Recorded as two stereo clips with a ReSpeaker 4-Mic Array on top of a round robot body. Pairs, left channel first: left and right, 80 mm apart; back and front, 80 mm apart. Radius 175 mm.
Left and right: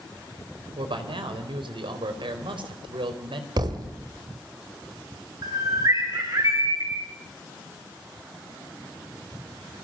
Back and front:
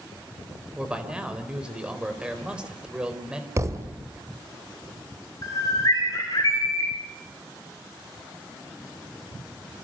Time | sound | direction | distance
0.8 | a man speaking | 80° right | 4 m
3.6 | a thud | 55° right | 2 m
5.4 | a bird | 130° right | 7.5 m